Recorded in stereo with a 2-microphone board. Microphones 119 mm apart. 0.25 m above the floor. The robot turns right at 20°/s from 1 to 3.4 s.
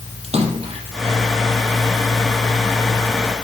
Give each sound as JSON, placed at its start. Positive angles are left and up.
{"t": 0.2, "sound": "a splash", "side_deg": -55, "distance_m": 3.5}